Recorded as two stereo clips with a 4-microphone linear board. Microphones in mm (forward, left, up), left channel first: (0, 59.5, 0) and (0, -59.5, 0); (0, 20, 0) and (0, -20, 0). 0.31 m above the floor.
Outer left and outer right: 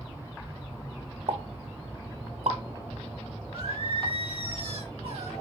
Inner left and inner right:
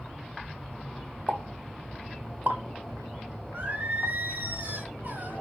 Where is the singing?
50° right (ahead or behind), 2.5 m.